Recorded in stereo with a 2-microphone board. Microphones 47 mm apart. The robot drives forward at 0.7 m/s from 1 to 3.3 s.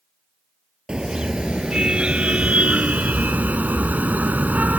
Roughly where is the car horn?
Centre.